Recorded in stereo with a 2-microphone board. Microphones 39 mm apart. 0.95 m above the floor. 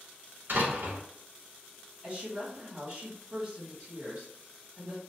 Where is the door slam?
60° right (ahead or behind), 0.8 m.